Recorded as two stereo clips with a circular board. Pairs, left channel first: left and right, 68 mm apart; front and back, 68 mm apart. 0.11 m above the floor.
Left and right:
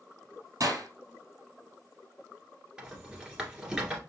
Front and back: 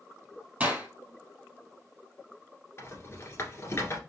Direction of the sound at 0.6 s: 115° right.